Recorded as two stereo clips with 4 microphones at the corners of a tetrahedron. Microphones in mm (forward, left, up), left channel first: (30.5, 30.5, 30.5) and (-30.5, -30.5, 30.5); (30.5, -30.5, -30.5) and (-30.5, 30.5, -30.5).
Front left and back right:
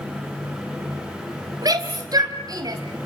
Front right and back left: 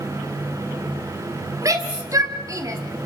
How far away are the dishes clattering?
No dishes clattering in this recording.